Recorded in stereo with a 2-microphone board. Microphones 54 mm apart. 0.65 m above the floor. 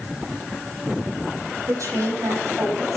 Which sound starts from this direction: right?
A woman speaking, at 1.7 s.